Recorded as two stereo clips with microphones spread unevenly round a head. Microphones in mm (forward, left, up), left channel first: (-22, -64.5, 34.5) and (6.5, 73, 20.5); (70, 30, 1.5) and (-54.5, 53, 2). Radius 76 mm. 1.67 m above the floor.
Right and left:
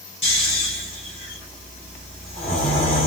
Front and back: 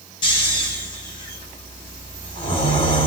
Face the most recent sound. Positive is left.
turn(degrees=-60)